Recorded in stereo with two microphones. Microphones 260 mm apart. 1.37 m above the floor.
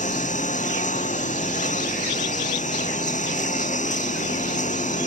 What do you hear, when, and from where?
0.0 s a lawn mower: 30° left (ahead or behind)